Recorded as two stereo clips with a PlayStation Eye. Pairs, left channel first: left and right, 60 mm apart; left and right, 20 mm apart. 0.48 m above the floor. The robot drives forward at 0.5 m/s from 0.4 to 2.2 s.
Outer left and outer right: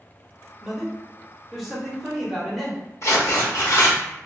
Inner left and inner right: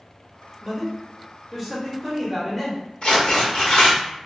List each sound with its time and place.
0.6 s a man speaking: 5° right (ahead or behind), 0.8 m; by 2.8 s centre (ahead or behind), 1.3 m
3.0 s tearing paper: 55° left (ahead or behind), 1.0 m